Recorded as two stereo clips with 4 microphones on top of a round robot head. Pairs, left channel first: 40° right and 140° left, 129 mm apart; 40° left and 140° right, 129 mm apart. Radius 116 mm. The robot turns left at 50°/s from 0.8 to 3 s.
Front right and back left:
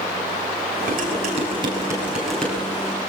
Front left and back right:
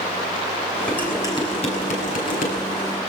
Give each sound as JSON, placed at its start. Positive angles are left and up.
{"t": 0.9, "sound": "dishes clattering", "azimuth_deg": 120, "distance_m": 8.5}